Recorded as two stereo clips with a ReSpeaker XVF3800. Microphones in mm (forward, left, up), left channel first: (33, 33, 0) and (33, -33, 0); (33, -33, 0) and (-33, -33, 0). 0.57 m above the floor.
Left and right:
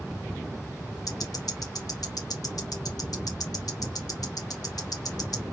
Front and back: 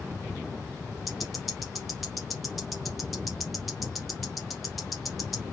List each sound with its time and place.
1.1 s ticking: 90° left, 1.1 m